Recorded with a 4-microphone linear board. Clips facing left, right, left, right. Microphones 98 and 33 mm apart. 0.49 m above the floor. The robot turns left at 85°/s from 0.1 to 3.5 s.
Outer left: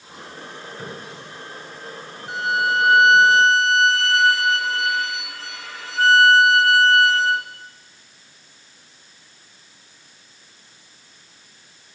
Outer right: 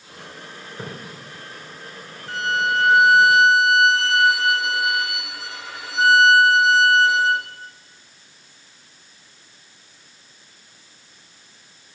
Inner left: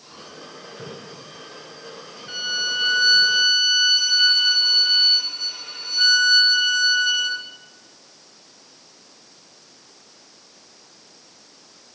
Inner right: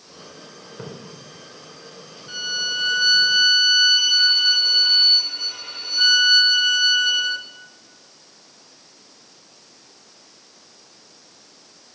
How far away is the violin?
About 1.2 m.